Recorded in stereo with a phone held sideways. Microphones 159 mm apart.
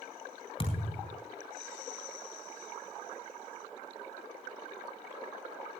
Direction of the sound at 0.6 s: 35° left (ahead or behind).